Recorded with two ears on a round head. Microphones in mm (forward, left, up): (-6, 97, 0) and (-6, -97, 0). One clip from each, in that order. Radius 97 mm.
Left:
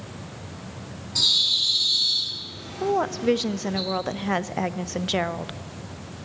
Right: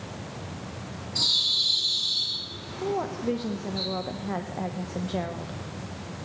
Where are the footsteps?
No footsteps in this recording.